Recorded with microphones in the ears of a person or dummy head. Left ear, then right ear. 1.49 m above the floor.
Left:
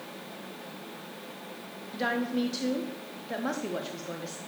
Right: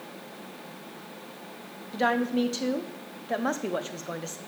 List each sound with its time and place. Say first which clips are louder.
1.9 s a woman speaking: right 4 dB; 30° right (ahead or behind), 0.7 m